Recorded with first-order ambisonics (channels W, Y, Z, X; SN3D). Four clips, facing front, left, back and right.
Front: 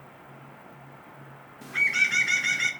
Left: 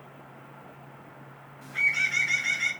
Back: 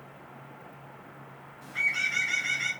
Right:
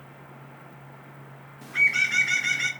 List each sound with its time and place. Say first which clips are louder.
1.6 s a bird: right 3 dB, front 4 dB; 40° right, 0.6 m